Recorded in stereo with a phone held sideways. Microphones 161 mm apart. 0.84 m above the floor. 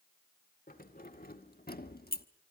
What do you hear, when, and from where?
0.7 s keys jangling: 65° left (ahead or behind), 2.5 m; by 2.3 s 70° left (ahead or behind), 1.1 m